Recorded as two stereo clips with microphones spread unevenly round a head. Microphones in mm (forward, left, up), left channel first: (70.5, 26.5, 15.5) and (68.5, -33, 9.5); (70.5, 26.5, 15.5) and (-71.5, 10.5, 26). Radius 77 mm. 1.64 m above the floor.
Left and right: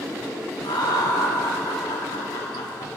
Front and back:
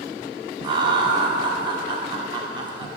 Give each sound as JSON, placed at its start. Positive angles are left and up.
{"t": 0.6, "sound": "laughter", "azimuth_deg": 125, "distance_m": 1.0}